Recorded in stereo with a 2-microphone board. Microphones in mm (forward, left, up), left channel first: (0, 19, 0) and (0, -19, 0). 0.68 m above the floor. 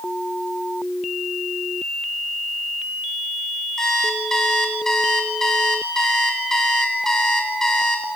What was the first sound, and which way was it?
An alarm clock, 15° left (ahead or behind).